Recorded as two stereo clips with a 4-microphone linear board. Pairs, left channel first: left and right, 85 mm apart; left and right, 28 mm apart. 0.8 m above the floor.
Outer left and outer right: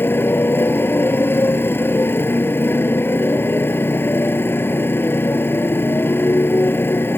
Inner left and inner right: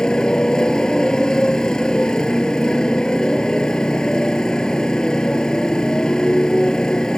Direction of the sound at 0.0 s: 25° left (ahead or behind).